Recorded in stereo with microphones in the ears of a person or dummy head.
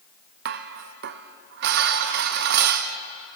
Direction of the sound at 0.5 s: 55° right (ahead or behind).